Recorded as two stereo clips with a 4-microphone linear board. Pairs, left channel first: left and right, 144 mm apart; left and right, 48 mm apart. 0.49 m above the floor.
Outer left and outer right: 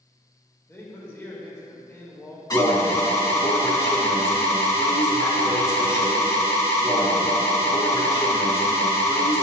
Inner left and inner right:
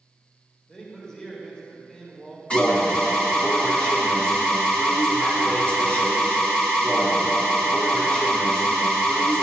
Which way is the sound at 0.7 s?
20° left (ahead or behind).